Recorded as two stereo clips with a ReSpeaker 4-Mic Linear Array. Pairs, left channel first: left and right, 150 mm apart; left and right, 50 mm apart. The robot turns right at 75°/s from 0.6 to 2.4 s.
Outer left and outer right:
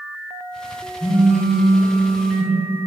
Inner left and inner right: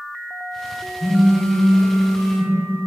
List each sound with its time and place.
1.0 s a phone buzzing: 5° right, 0.8 m; by 2.9 s 100° left, 0.8 m